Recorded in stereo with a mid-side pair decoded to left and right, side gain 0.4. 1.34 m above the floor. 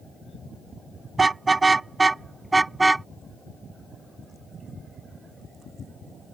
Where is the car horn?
30° right; by 3.1 s 15° right.